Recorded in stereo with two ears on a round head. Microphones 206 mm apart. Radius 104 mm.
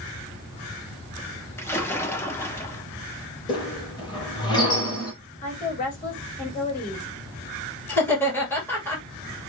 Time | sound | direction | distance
1.6 | a splash | 10° left (ahead or behind) | 1.2 m
3.5 | a squeak | 20° left (ahead or behind) | 4 m
5.4 | a woman speaking | 40° left (ahead or behind) | 3.5 m
7.9 | laughter | 10° left (ahead or behind) | 2.5 m